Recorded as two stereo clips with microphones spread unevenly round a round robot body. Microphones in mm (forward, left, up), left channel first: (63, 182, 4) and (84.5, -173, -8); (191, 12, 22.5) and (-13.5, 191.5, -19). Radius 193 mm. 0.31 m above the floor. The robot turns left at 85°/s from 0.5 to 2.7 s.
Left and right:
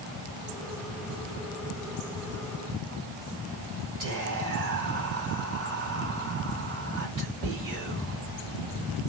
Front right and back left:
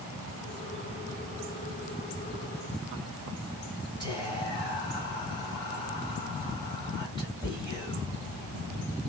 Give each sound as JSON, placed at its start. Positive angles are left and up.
{"t": 4.0, "sound": "whispering", "azimuth_deg": -125, "distance_m": 1.9}